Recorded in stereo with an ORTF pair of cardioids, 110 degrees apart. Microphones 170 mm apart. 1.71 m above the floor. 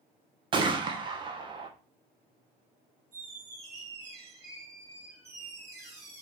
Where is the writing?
No writing in this recording.